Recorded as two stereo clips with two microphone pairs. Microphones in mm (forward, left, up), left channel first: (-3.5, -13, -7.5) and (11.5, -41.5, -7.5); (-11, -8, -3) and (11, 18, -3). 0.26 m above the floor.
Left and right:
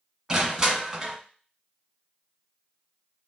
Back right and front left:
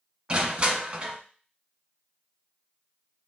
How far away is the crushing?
About 1.3 m.